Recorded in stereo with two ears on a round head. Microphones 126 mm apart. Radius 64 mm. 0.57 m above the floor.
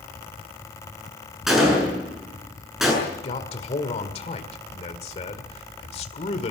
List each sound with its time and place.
1.5 s a gunshot: centre (ahead or behind), 7.5 m
3.0 s a man speaking: 45° left (ahead or behind), 1.9 m